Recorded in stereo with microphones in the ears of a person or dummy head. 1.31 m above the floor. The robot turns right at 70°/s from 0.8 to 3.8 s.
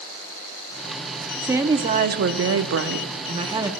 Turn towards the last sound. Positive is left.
turn(degrees=-5)